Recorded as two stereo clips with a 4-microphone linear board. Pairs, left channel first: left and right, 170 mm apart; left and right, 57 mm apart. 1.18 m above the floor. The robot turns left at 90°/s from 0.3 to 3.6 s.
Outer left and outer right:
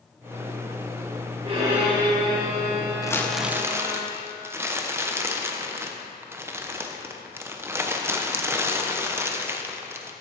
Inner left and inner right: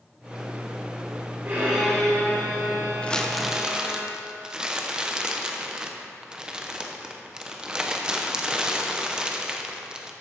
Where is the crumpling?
30° left, 0.8 m; by 10.1 s 20° right, 0.8 m.